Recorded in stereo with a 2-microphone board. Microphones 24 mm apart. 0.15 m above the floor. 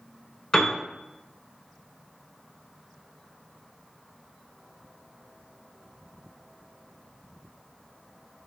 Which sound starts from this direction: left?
A piano, at 0.5 s.